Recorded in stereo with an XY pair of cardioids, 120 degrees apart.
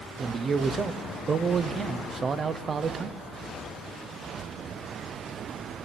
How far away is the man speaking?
About 0.7 m.